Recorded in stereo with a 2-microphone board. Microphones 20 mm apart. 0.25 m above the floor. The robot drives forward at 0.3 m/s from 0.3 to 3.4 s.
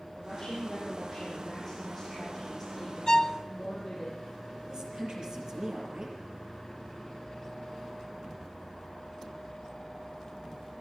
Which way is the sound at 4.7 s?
45° right (ahead or behind).